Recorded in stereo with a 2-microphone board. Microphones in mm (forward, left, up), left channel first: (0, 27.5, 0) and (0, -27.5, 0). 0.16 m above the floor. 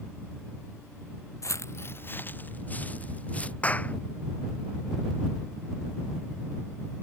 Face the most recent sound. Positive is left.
turn(degrees=25)  # may be behind; listen again after turning